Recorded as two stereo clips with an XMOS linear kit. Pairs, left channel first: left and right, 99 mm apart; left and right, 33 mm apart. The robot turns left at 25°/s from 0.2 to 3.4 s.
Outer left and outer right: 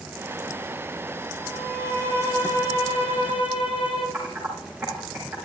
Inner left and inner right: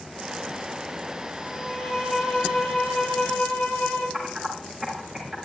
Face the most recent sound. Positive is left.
turn(degrees=-15)  # may be behind; listen again after turning